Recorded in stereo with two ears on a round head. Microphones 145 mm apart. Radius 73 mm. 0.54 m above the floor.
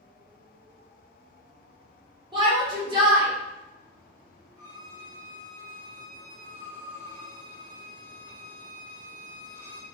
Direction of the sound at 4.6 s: 10° left (ahead or behind).